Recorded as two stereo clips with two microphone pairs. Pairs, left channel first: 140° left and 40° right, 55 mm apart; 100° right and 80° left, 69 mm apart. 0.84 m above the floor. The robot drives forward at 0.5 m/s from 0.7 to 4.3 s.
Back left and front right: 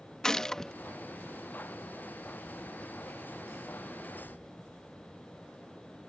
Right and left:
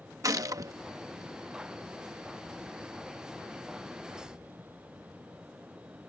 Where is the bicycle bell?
No bicycle bell in this recording.